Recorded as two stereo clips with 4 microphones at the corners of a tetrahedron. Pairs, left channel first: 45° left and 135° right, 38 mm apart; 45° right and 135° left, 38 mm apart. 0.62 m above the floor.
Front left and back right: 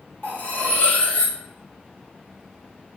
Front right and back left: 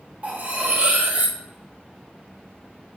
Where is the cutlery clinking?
85° left, 1.2 m.